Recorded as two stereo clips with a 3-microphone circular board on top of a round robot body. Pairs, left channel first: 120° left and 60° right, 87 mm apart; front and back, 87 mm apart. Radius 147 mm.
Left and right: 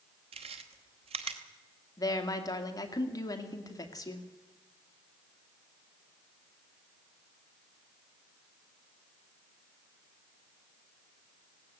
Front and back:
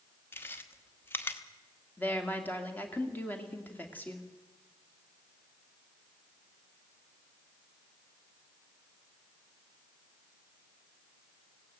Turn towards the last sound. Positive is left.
turn(degrees=70)